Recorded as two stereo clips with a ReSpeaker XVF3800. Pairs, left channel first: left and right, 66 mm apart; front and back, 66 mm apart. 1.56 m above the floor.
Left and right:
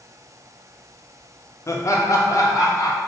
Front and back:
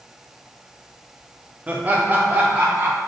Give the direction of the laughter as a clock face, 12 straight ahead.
8 o'clock.